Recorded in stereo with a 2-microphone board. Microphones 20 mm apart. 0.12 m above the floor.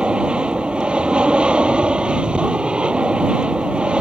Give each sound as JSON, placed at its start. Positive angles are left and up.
{"t": 0.0, "sound": "an aircraft", "side_deg": -65}